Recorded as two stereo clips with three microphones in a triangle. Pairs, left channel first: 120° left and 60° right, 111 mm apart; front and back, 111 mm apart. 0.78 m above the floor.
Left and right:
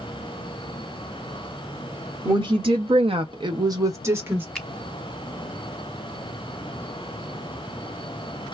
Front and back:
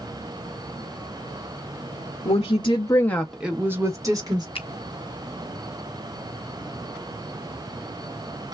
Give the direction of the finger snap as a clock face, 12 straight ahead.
11 o'clock.